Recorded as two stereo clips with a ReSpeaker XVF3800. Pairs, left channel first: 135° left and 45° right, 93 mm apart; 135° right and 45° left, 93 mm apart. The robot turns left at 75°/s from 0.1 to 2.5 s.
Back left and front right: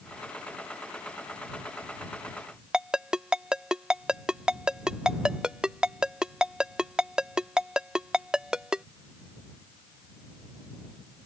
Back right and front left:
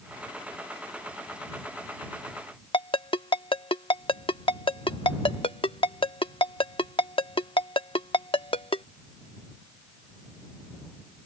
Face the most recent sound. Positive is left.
turn(degrees=-130)